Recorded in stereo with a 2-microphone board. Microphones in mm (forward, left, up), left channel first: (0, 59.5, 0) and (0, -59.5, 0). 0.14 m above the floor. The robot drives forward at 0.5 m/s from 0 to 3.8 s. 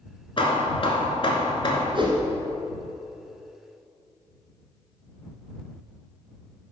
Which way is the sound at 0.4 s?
45° left (ahead or behind).